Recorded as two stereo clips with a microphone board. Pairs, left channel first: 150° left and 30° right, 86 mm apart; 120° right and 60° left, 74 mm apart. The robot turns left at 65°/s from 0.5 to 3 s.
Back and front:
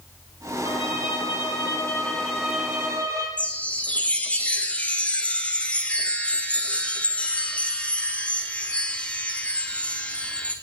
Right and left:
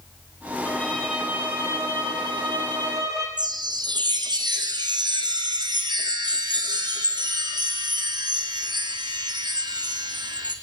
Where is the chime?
75° left, 2 m.